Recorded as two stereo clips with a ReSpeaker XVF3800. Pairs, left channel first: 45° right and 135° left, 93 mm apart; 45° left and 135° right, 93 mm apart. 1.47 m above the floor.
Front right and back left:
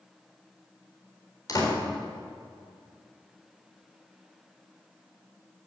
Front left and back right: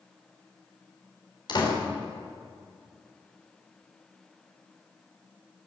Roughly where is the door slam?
Ahead.